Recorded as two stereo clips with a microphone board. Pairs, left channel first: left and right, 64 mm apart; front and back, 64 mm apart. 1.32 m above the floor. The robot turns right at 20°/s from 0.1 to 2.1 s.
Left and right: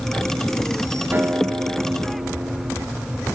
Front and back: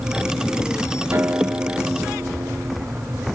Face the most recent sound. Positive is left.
turn(degrees=-120)